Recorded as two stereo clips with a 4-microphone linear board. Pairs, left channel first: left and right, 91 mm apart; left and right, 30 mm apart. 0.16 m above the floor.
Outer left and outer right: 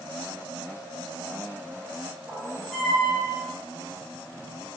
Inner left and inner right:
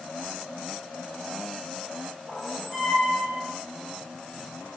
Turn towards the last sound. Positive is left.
turn(degrees=-5)  # may be behind; listen again after turning